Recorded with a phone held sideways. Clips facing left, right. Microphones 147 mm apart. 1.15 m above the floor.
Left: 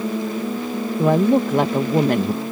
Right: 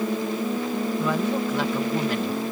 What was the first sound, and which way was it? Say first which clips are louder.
A woman speaking: left 12 dB; 50° left (ahead or behind).